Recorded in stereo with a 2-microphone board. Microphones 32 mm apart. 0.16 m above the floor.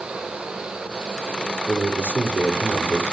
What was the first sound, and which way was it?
A man speaking, 55° right (ahead or behind).